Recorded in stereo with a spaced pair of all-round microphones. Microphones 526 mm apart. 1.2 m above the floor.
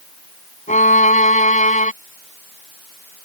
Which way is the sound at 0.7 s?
15° left (ahead or behind).